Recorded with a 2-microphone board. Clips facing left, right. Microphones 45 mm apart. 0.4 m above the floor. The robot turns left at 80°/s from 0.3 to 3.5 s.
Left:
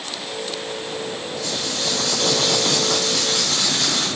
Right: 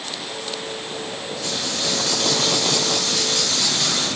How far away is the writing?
About 5.5 m.